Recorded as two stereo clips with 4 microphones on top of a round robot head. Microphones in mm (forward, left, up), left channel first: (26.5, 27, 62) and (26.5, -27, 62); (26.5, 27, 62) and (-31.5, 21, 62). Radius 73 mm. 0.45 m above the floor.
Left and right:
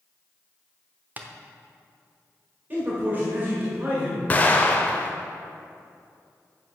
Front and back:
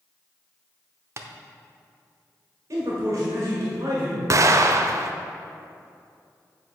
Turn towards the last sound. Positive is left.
turn(degrees=155)